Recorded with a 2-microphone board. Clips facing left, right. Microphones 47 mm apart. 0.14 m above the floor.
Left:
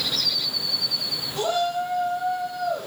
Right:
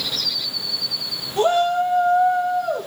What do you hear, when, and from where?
1.4 s a shout: 35° right (ahead or behind), 5 m; by 2.9 s 40° right (ahead or behind), 6.5 m